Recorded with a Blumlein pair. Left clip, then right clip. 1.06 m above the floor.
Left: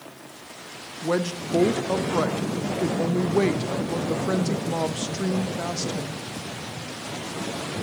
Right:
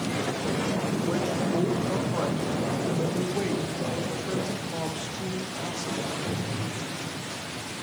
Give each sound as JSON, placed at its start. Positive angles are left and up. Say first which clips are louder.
{"t": 1.0, "sound": "a woman speaking", "louder": "left 6 dB", "azimuth_deg": 25, "distance_m": 0.7}